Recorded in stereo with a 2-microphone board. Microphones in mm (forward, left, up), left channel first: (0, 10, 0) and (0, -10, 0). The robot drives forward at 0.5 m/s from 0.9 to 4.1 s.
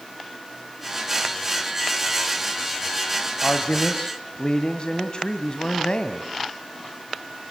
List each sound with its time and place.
3.4 s a man speaking: 50° left (ahead or behind), 1.5 m